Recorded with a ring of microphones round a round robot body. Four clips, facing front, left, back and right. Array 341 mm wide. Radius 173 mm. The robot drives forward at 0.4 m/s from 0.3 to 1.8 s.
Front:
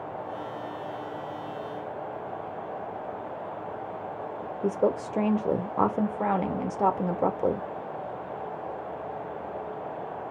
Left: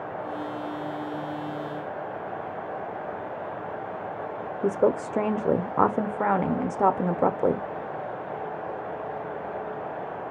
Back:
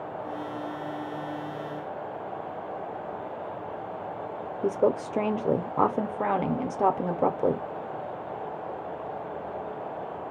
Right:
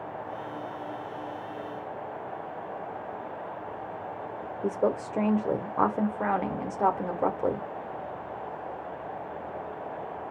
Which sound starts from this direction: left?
A woman speaking, at 4.6 s.